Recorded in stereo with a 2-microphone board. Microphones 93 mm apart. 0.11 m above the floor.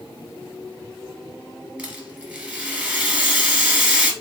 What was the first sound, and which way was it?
A rattle, 15° right (ahead or behind).